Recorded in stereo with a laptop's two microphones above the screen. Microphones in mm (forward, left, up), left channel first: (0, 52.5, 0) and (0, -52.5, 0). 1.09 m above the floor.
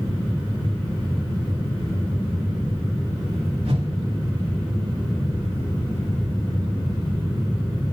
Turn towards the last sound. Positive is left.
turn(degrees=-70)  # may be behind; listen again after turning